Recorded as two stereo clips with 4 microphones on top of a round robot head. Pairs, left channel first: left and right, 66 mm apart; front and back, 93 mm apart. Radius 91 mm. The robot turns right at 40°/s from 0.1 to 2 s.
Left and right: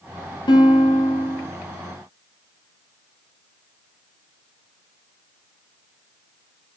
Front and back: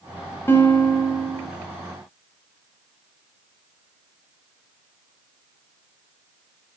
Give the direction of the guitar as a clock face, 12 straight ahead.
10 o'clock.